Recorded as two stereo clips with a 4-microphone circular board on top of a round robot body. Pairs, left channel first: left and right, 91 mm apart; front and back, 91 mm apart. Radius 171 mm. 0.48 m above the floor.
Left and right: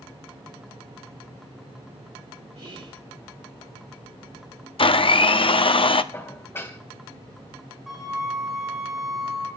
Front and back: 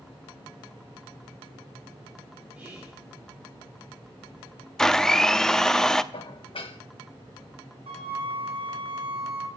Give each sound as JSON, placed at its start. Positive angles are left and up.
{"t": 2.5, "sound": "whispering", "azimuth_deg": -110, "distance_m": 3.0}
{"t": 4.8, "sound": "a blender", "azimuth_deg": 85, "distance_m": 1.1}
{"t": 6.1, "sound": "dishes clattering", "azimuth_deg": 25, "distance_m": 2.5}
{"t": 7.9, "sound": "a flute", "azimuth_deg": 180, "distance_m": 5.5}